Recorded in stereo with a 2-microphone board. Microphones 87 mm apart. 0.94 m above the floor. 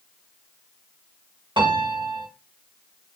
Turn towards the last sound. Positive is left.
turn(degrees=-70)  # may be behind; listen again after turning